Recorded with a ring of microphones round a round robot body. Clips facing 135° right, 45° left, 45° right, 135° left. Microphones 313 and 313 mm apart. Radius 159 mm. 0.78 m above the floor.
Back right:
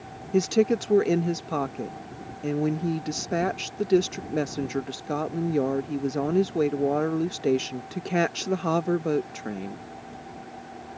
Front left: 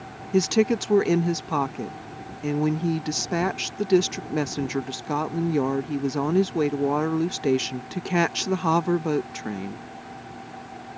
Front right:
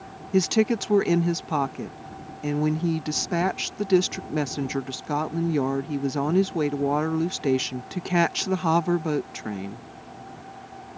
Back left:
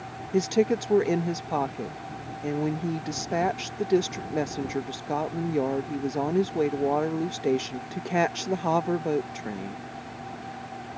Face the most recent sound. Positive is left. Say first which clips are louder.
# front left 1 dB, front right 1 dB
turn(degrees=-20)